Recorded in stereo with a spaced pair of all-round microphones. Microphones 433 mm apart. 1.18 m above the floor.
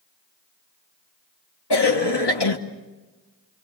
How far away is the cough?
About 1.3 m.